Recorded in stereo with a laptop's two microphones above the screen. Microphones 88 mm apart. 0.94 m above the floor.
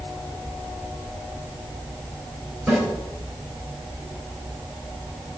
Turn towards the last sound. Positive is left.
turn(degrees=-5)  # may be behind; listen again after turning